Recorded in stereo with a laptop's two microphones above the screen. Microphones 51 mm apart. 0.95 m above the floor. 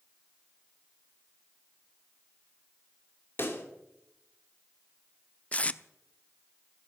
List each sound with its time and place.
3.4 s a pop: 50° left (ahead or behind), 2.5 m
5.5 s tape being pulled: 30° left (ahead or behind), 0.6 m